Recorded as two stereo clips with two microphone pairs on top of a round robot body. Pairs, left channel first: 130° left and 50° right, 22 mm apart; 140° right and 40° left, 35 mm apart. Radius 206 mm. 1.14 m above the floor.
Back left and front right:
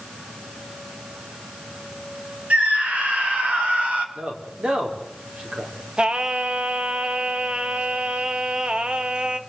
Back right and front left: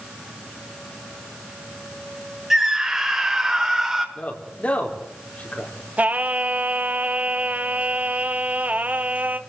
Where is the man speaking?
90° right, 5 m.